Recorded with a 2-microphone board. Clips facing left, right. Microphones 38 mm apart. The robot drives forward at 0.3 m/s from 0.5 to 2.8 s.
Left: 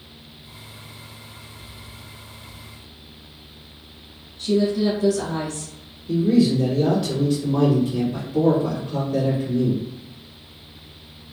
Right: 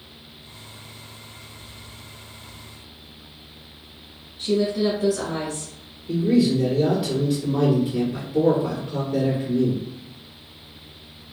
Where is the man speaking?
5° right (ahead or behind), 1.6 m.